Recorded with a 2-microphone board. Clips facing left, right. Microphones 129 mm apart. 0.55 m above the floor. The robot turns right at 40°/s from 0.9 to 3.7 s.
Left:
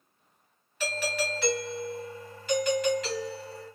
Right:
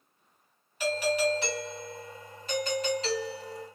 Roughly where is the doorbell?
Behind right.